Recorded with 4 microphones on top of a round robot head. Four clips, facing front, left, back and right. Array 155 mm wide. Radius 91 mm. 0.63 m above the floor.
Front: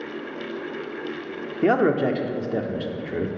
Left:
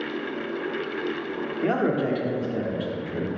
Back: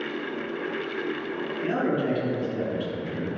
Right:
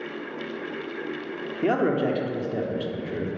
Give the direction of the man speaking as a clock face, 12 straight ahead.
12 o'clock.